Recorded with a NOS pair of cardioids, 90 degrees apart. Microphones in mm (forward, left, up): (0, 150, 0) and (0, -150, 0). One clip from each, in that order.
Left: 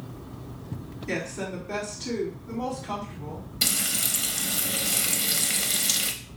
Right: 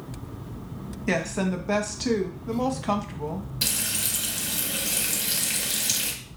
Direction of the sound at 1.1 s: 70° right.